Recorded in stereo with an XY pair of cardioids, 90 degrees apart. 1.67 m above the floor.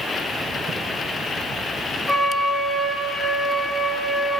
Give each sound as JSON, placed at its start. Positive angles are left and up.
{"t": 2.1, "sound": "a flute", "azimuth_deg": 10, "distance_m": 2.0}